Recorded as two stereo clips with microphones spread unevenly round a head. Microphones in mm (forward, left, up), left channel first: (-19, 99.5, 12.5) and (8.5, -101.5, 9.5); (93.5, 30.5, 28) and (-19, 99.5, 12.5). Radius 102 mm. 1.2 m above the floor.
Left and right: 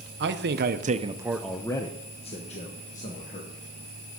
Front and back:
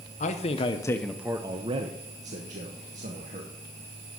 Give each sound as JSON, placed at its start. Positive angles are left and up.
{"t": 0.2, "sound": "a man speaking", "azimuth_deg": -65, "distance_m": 0.9}